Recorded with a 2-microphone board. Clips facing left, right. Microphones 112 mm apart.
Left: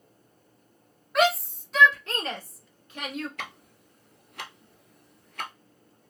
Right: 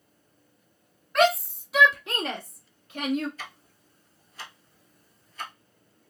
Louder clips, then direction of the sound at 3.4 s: Left 3 dB; 65° left (ahead or behind).